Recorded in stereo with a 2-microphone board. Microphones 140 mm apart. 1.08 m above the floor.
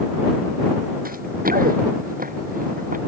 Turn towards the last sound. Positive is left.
turn(degrees=-70)  # may be behind; listen again after turning